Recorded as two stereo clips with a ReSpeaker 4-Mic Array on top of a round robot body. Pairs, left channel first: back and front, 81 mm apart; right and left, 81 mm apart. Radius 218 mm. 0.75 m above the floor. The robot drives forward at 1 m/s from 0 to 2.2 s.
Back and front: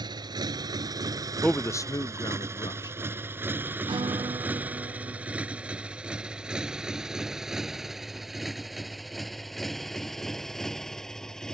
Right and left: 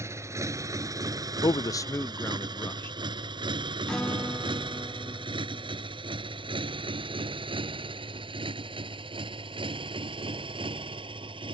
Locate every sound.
0.0 s a motorcycle: 35° left; by 11.6 s 95° left
1.4 s a man speaking: 95° right; by 3.0 s 150° right
3.9 s a guitar: 10° right